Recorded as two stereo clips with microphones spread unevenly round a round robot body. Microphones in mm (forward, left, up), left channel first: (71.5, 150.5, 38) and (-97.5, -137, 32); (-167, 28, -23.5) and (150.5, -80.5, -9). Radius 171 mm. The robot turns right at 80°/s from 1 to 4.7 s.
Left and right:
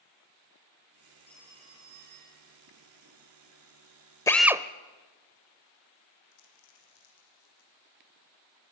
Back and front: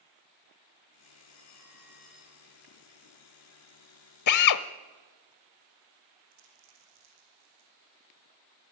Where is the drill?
140° left, 0.9 m; by 4.6 s 170° left, 0.9 m.